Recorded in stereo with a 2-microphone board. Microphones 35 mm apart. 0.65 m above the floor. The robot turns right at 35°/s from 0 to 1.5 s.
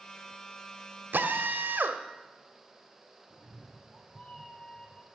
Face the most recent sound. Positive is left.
turn(degrees=10)  # may be behind; listen again after turning